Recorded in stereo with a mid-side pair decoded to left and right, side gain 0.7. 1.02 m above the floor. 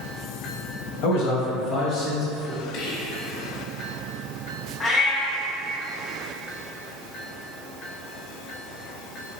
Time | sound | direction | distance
1.0 | a man speaking | 65° left | 1.1 m
2.7 | whispering | 55° left | 1.1 m
4.8 | a cat meowing | 30° left | 0.9 m